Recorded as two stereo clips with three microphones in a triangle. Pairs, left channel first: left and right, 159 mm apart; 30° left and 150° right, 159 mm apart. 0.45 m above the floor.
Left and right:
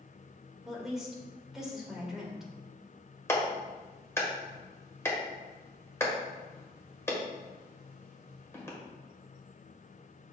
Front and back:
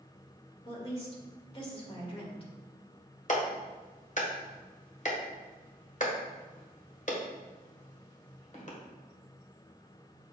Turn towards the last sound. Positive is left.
turn(degrees=20)